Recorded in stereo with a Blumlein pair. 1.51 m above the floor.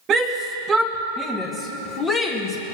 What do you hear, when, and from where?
0.1 s a shout: 30° right, 1.4 m; by 2.8 s 30° left, 1.8 m